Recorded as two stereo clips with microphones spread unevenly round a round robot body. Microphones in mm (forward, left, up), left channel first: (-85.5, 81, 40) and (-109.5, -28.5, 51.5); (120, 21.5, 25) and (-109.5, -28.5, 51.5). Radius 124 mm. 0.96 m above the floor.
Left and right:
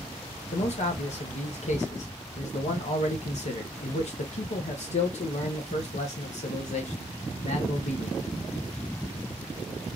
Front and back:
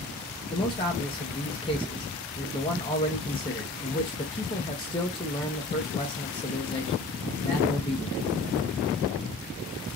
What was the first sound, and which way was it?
A man speaking, 80° left.